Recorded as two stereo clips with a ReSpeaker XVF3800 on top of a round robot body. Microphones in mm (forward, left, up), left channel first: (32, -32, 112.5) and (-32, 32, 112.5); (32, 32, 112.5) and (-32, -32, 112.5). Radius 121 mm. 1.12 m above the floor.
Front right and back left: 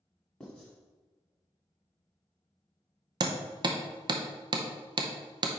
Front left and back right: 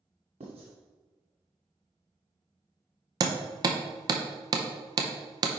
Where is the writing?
125° right, 1.5 m.